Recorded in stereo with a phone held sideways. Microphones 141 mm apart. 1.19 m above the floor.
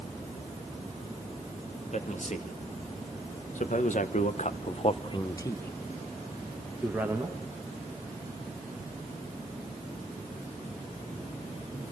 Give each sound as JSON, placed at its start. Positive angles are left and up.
{"t": 1.9, "sound": "a man speaking", "side_deg": 55, "distance_m": 2.5}